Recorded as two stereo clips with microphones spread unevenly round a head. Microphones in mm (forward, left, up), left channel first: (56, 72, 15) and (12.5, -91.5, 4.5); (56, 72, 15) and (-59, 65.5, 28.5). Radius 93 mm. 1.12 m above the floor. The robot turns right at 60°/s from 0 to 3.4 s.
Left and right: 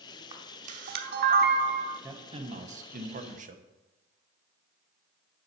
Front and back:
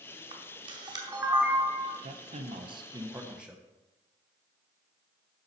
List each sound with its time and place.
0.3 s a camera shutter: 165° right, 0.9 m; by 2.0 s 65° right, 0.9 m
2.0 s a man speaking: 170° right, 0.9 m; by 3.6 s 90° right, 0.9 m